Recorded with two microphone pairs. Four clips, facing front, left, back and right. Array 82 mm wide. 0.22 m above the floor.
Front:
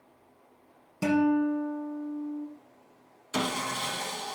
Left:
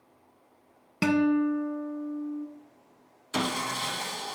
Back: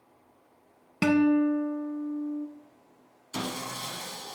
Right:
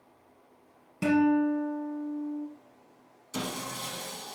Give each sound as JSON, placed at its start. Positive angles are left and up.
{"t": 1.0, "sound": "a guitar", "azimuth_deg": 130, "distance_m": 1.0}
{"t": 3.3, "sound": "sawing", "azimuth_deg": 60, "distance_m": 0.6}